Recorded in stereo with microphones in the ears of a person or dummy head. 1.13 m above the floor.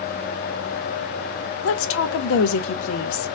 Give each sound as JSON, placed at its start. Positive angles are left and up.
{"t": 1.6, "sound": "a woman speaking", "side_deg": 85, "distance_m": 0.5}